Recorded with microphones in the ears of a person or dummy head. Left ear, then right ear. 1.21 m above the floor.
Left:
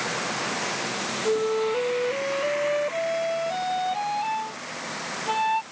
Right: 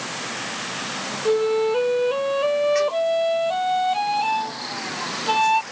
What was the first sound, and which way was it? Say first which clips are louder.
A flute: right 5 dB; 30° right (ahead or behind).